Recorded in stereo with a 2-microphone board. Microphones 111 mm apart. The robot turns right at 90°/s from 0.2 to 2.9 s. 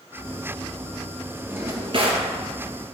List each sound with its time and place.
1.5 s a drawer: 160° right, 1.7 m; by 2.3 s 90° right, 1.7 m